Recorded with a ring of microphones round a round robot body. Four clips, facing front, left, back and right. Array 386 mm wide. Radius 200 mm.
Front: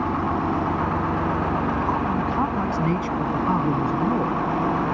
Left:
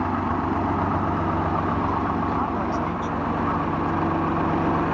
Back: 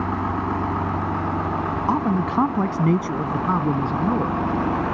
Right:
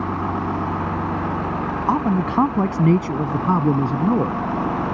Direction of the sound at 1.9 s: 125° right.